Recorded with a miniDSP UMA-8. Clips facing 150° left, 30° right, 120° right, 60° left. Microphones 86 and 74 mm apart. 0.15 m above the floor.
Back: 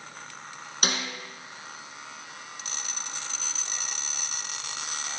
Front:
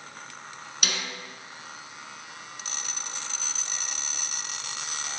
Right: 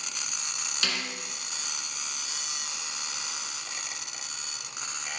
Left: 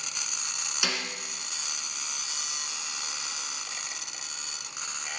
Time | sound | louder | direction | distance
0.8 | a snare drum | back 3 dB, left 1 dB | 130° left | 1.8 m